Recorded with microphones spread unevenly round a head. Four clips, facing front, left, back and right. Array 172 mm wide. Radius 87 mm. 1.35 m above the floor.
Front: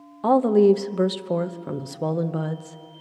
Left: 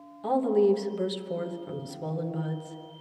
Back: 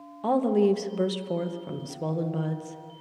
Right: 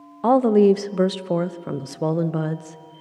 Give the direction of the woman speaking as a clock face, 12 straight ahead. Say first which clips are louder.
Right 8 dB, front 6 dB; 2 o'clock.